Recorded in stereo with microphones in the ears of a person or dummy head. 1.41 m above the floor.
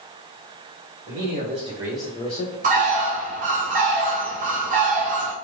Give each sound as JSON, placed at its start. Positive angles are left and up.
{"t": 1.1, "sound": "a man speaking", "side_deg": -45, "distance_m": 1.0}
{"t": 2.6, "sound": "a bird", "side_deg": -40, "distance_m": 0.5}